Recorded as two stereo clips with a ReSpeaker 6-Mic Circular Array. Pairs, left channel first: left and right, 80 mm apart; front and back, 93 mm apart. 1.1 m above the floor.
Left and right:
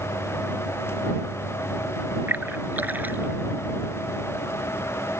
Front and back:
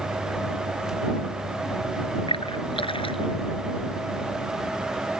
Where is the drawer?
No drawer in this recording.